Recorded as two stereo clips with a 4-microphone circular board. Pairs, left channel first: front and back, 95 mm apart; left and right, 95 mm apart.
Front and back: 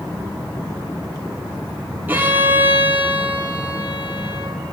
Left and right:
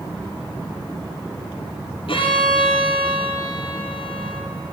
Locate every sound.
2.1 s a violin: 110° left, 3 m